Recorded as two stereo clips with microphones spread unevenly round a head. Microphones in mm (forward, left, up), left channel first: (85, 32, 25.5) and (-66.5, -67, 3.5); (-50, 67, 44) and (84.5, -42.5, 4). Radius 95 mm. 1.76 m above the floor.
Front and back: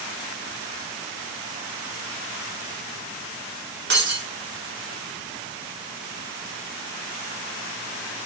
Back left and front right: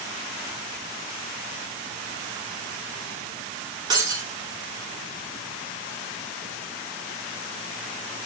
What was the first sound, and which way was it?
Breaking glass, 115° right.